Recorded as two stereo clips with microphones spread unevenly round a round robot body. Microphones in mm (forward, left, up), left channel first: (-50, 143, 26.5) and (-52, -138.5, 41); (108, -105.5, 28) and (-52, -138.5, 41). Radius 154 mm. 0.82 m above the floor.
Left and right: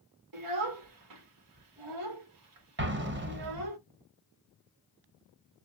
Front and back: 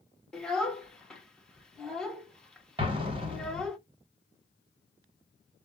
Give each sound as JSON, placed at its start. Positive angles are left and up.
{"t": 0.3, "sound": "a child speaking", "azimuth_deg": -75, "distance_m": 1.5}
{"t": 2.8, "sound": "an explosion", "azimuth_deg": -120, "distance_m": 1.2}